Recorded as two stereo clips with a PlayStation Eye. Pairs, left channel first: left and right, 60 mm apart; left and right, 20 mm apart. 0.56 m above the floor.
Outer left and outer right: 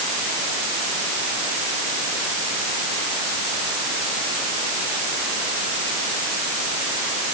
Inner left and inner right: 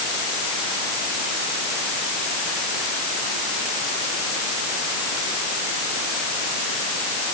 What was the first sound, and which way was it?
Only background noise.